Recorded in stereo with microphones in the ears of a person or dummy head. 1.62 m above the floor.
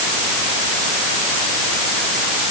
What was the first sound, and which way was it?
Only background noise.